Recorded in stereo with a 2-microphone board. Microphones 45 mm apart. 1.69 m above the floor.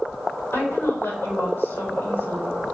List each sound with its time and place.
0.5 s a woman speaking: 65° left (ahead or behind), 4.5 m